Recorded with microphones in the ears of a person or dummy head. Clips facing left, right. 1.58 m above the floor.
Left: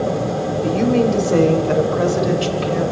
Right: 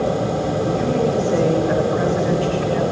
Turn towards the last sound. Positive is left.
turn(degrees=60)  # may be behind; listen again after turning